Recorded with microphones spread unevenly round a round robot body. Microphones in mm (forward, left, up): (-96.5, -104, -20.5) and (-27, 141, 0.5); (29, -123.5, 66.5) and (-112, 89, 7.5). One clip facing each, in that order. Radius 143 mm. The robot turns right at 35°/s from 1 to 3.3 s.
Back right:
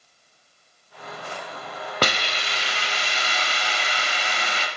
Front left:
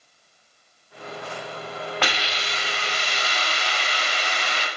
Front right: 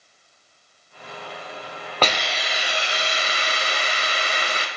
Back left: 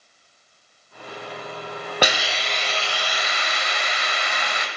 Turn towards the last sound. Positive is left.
turn(degrees=-110)